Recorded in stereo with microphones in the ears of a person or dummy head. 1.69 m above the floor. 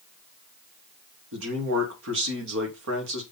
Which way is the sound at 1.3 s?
75° right (ahead or behind).